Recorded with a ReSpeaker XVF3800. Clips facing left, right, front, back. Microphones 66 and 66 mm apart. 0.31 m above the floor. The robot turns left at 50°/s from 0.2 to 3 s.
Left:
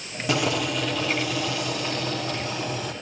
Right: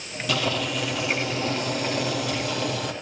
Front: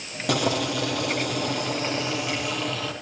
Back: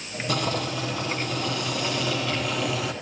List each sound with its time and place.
0.3 s boiling: 25° left, 7.5 m; by 2.9 s 110° right, 7.5 m